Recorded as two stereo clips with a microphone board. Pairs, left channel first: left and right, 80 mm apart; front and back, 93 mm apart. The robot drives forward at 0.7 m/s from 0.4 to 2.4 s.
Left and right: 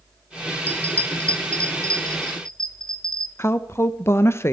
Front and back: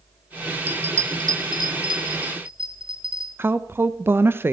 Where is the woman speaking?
130° left, 0.6 m.